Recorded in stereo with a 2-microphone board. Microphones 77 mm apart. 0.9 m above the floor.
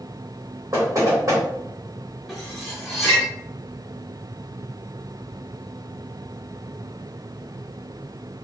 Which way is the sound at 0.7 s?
40° right (ahead or behind).